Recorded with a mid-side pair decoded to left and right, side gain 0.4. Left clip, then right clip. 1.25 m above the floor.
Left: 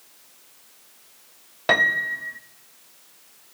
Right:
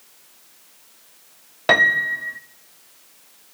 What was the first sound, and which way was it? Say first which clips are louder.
A piano: right 4 dB; 20° right.